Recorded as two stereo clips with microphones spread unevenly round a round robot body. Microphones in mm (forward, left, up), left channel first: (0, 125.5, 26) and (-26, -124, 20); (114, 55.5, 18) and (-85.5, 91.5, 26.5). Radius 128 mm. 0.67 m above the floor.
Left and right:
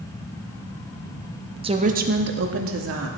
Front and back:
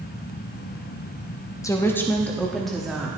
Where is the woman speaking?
60° right, 0.8 m; by 3.1 s 100° right, 1.4 m.